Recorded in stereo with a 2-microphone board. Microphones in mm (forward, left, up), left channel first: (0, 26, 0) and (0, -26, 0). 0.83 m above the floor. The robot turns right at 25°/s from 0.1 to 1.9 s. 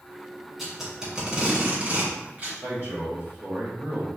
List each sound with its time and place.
0.6 s tape being pulled: centre (ahead or behind), 1.5 m; by 2.5 s 30° right (ahead or behind), 1.5 m
2.6 s a man speaking: 45° right (ahead or behind), 1.9 m